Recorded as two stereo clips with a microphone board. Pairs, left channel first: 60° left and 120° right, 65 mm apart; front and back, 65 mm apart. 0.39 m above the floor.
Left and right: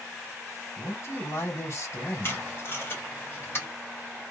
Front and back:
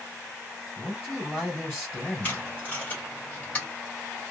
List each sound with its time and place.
0.8 s a man speaking: 55° left, 2.5 m
2.2 s tape being pulled: 50° left, 2.0 m